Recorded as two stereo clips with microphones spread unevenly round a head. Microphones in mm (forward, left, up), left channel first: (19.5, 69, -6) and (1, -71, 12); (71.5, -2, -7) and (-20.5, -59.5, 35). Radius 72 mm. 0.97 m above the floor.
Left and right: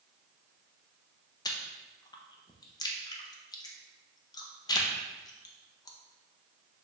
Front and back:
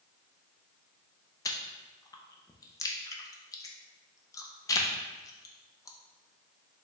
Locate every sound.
1.4 s chewing: 35° left, 0.6 m